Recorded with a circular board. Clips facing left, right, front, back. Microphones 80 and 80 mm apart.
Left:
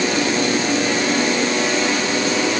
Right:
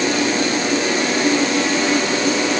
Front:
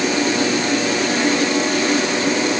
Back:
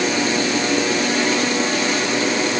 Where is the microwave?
I don't hear a microwave.